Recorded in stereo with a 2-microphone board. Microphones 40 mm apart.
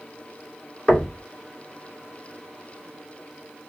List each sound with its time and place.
0.9 s knocking: 20° left (ahead or behind), 2 m